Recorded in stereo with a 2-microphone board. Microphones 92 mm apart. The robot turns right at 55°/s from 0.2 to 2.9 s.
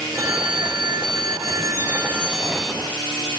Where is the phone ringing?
130° right, 1.1 m; by 2.8 s 10° left, 1.1 m.